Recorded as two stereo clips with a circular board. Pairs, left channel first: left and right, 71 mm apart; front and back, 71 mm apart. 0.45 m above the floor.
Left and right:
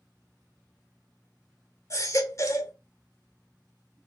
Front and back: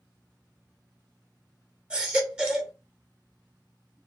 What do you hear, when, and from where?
1.9 s a baby crying: 105° left, 1.1 m